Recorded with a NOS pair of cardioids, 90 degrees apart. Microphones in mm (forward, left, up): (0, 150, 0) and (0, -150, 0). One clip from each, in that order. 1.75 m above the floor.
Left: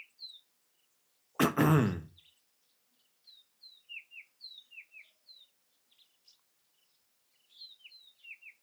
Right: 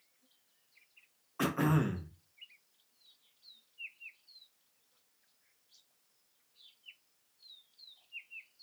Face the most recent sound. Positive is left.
turn(degrees=35)